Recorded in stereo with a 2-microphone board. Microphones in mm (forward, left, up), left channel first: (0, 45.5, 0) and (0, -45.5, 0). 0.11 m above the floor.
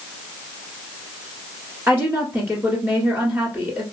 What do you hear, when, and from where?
1.9 s a woman speaking: 25° right (ahead or behind), 1.4 m